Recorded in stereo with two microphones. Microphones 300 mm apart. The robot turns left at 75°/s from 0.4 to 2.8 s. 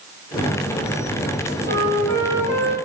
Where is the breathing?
I don't hear breathing.